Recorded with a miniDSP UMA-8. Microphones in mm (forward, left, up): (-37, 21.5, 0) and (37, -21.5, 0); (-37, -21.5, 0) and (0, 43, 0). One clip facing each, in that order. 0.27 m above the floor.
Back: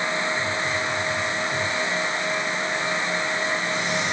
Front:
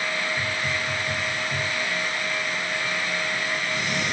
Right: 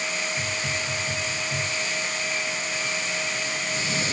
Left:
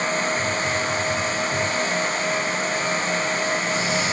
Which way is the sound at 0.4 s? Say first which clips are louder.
Back 2 dB, left 6 dB; 65° right.